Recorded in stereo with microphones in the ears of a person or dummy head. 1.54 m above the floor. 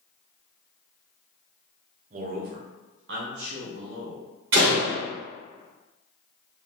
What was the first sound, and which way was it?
A man speaking, 45° right (ahead or behind).